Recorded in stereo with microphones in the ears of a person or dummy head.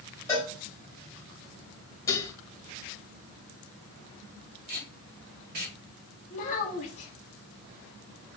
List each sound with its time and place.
0.3 s a cowbell: 15° left (ahead or behind), 2.0 m
2.1 s dishes clattering: 15° left (ahead or behind), 0.8 m
4.7 s tape being pulled: 50° right (ahead or behind), 1.3 m
6.3 s a child speaking: 50° left (ahead or behind), 1.1 m